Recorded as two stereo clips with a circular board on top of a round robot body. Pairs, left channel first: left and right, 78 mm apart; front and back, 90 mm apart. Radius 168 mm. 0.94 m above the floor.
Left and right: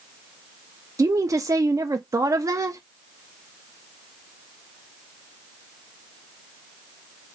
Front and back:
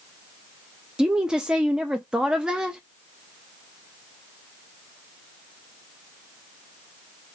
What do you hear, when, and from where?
1.0 s a woman speaking: 100° right, 0.7 m